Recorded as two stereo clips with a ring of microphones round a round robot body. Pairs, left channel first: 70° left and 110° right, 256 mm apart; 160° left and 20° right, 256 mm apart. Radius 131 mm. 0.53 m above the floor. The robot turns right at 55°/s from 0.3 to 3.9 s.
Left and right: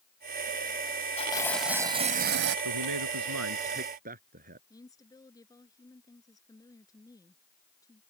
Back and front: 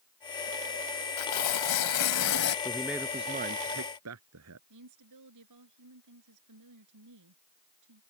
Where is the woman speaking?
10° right.